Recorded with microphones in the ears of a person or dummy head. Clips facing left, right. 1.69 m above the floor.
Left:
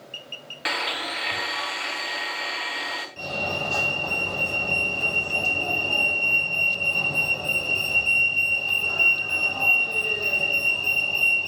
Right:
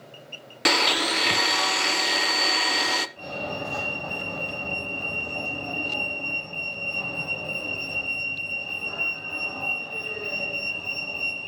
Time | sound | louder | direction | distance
0.7 | a blender | right 7 dB | 75° right (ahead or behind) | 1.1 m
3.2 | a fire alarm | left 2 dB | 60° left (ahead or behind) | 8 m